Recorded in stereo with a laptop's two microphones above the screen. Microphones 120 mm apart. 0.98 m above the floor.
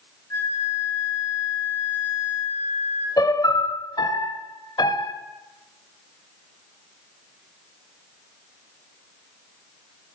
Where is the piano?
35° left (ahead or behind), 1.0 m.